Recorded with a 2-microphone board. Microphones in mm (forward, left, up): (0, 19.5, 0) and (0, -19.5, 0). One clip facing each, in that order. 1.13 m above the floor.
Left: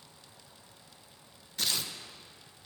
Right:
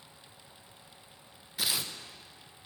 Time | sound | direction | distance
1.6 | tearing paper | 10° right (ahead or behind) | 0.5 m